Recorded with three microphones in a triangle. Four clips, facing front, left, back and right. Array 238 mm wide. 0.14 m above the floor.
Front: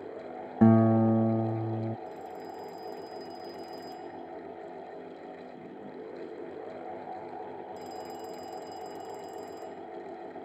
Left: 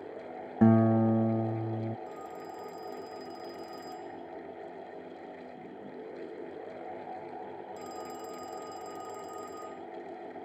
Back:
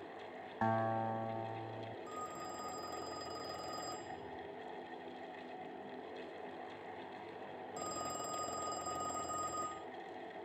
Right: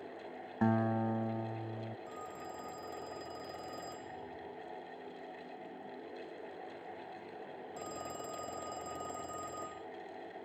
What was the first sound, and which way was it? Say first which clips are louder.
A guitar: left 9 dB, front 14 dB; 30° left.